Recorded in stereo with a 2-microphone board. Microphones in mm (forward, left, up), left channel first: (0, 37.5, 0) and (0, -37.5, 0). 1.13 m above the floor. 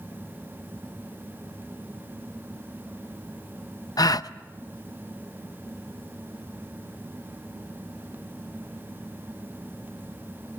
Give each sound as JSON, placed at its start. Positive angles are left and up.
{"t": 4.0, "sound": "a gasp", "side_deg": 55, "distance_m": 0.5}